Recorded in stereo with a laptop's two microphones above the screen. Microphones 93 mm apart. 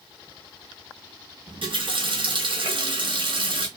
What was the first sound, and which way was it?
A running tap, 65° right (ahead or behind).